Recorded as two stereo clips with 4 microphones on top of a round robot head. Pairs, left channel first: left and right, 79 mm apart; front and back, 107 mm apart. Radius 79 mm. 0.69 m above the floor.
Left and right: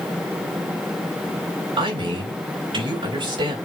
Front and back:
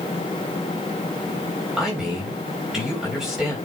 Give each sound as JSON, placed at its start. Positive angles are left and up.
{"t": 1.8, "sound": "a man speaking", "azimuth_deg": -90, "distance_m": 4.0}